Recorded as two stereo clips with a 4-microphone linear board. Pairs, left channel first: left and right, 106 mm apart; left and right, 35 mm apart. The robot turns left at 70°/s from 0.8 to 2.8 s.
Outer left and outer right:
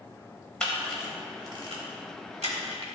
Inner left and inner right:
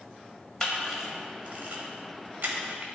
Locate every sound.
0.6 s a camera shutter: 10° left (ahead or behind), 1.3 m; by 2.9 s 50° right (ahead or behind), 1.3 m